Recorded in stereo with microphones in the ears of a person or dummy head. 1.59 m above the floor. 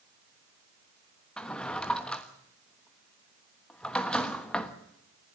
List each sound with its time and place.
1.4 s a drawer: 10° left (ahead or behind), 1.2 m